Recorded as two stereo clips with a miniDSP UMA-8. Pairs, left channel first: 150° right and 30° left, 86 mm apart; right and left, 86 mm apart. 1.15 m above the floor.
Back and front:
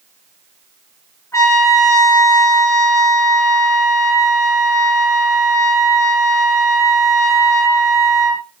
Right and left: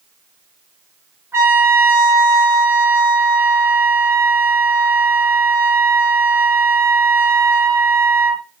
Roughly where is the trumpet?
Behind left.